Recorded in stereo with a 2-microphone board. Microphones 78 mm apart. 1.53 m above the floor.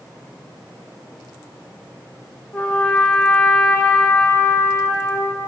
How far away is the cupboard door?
I don't hear a cupboard door.